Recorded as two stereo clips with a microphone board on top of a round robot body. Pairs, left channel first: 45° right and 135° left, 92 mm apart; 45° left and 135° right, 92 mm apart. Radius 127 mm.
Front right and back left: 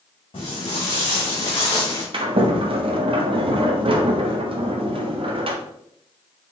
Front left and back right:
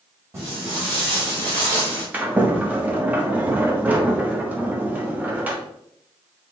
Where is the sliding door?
150° left, 1.2 m.